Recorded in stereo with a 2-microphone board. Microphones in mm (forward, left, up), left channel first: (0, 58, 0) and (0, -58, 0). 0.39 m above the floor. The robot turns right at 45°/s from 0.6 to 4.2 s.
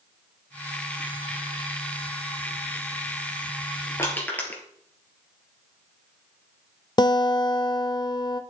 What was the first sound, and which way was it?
Crushing, 25° left (ahead or behind).